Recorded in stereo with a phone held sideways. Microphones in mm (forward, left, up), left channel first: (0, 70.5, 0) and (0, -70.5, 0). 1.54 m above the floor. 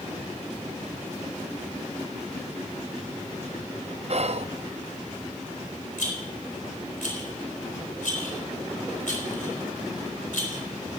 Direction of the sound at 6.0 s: 80° left.